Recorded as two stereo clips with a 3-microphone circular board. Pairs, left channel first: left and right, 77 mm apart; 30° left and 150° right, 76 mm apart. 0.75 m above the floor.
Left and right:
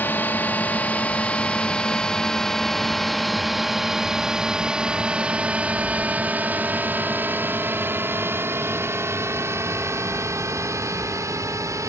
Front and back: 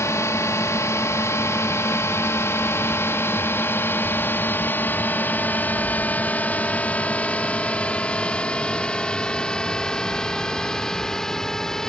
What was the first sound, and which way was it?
A drone, 45° left.